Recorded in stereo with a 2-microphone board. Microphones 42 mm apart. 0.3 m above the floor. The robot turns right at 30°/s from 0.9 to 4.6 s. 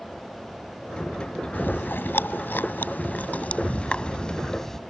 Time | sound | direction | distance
1.5 | chewing | 55° left (ahead or behind) | ?